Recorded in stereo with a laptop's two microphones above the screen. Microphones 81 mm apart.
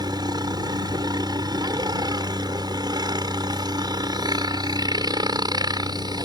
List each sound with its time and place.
0.0 s a helicopter: 60° right (ahead or behind)